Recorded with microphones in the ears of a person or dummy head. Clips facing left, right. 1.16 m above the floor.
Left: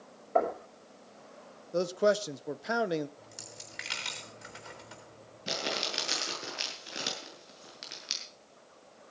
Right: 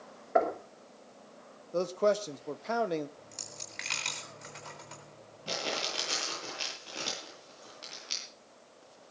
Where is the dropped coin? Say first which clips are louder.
Even; 15° left (ahead or behind), 3.5 m.